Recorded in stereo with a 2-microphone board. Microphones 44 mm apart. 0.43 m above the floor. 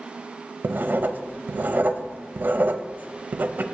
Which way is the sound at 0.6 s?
45° right (ahead or behind).